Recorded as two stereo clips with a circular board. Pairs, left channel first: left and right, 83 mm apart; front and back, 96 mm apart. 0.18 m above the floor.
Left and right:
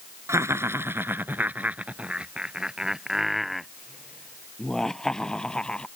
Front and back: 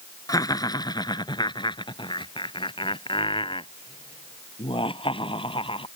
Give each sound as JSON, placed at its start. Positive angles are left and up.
{"t": 0.3, "sound": "laughter", "azimuth_deg": -40}